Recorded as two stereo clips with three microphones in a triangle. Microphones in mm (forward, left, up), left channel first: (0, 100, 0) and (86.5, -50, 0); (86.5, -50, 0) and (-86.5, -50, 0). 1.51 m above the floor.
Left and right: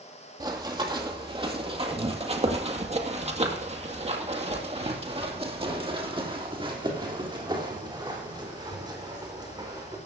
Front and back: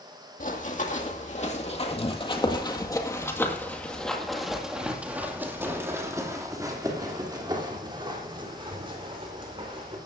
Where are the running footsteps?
Straight ahead, 2.5 m; by 10.0 s 125° right, 4.5 m.